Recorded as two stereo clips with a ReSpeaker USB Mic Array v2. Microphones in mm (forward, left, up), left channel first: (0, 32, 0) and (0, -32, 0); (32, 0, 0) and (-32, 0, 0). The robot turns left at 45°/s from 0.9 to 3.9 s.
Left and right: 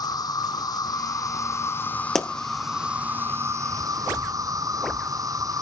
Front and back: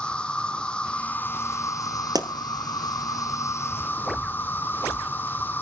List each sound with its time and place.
0.0 s an insect: 75° left, 0.9 m; by 5.6 s 60° right, 0.9 m
2.1 s a pop: 175° left, 1.1 m; by 2.3 s 170° left, 1.1 m